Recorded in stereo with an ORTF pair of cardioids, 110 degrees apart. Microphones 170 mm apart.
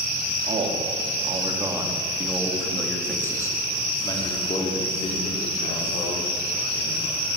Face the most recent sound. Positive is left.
turn(degrees=55)